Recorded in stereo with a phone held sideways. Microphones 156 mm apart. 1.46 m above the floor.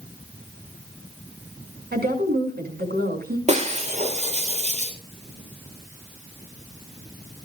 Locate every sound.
1.9 s a woman speaking: 80° right, 6.5 m
3.5 s breaking glass: 45° right (ahead or behind), 3.5 m